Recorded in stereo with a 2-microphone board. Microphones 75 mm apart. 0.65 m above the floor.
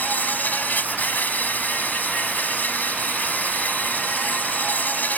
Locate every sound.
0.0 s an insect: 25° left (ahead or behind)